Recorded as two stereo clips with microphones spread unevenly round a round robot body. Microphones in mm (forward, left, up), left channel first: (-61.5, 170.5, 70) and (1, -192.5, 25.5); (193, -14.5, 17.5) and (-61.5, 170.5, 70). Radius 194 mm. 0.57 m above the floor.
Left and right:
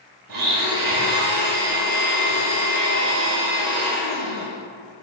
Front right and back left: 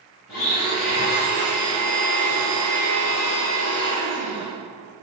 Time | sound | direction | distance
0.3 | a blender | 95° right | 2.5 m